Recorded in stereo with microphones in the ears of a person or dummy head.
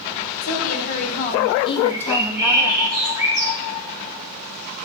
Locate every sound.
0.4 s a woman speaking: 50° left (ahead or behind), 1.9 m; by 2.9 s 35° right (ahead or behind), 0.8 m
1.9 s a bird: 15° right (ahead or behind), 3.5 m